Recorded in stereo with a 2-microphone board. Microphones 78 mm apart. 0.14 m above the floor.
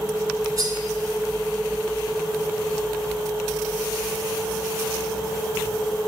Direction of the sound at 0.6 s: 50° right (ahead or behind).